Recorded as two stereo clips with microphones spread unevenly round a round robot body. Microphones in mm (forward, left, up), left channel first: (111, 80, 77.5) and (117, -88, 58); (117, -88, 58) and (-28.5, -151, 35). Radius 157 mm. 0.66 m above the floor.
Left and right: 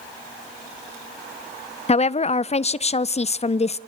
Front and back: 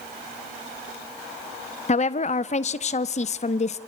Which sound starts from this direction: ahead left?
A woman speaking, at 1.9 s.